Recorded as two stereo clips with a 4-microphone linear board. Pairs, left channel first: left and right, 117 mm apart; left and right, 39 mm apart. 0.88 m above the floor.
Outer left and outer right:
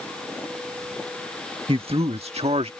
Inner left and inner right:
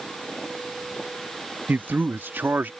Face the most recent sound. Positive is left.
turn(degrees=-60)  # may be behind; listen again after turning